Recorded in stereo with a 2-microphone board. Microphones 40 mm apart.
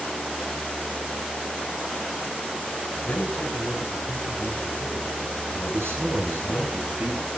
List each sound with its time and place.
3.1 s a man speaking: 50° left (ahead or behind), 5 m
5.7 s a man speaking: 80° right, 8 m